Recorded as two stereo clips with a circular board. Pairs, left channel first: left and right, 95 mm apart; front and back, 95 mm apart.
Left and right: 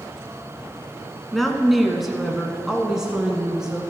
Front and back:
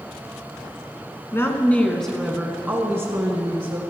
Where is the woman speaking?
5° left, 1.2 m; by 3.8 s 170° right, 1.5 m.